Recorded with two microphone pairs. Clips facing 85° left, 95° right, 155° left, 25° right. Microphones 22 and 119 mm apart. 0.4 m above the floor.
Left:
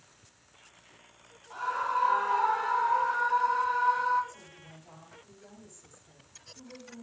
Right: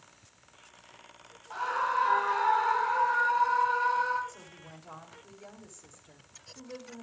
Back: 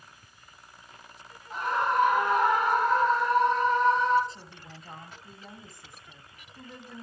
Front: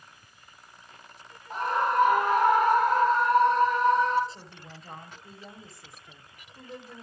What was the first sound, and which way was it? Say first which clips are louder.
A scream: right 1 dB, front 1 dB; 25° right.